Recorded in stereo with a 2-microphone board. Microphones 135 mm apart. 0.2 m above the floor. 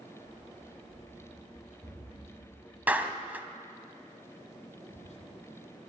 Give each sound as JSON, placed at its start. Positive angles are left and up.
{"t": 0.2, "sound": "running footsteps", "side_deg": -25, "distance_m": 7.5}
{"t": 2.9, "sound": "a clap", "side_deg": -15, "distance_m": 1.2}
{"t": 4.9, "sound": "whispering", "side_deg": 60, "distance_m": 3.0}